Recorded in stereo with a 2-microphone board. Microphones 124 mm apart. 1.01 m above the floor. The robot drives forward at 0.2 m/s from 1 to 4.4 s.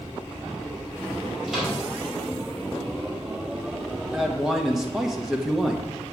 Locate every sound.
1.5 s a microwave: 5° right (ahead or behind), 3.5 m
4.1 s a man speaking: centre (ahead or behind), 1.3 m